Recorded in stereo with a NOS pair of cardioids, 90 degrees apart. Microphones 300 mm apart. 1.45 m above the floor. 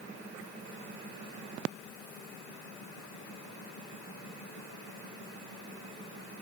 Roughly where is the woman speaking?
I don't hear a woman speaking.